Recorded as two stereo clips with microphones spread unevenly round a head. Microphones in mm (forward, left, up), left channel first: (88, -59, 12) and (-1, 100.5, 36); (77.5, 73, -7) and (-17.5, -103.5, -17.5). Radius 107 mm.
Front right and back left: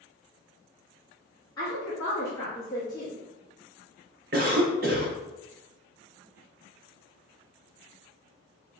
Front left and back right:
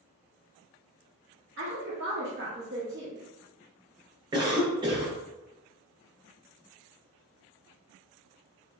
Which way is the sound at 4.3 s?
170° left.